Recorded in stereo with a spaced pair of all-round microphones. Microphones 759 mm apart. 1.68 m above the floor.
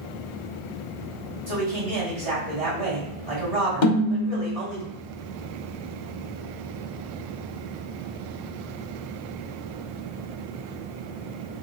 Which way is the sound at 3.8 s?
75° left (ahead or behind).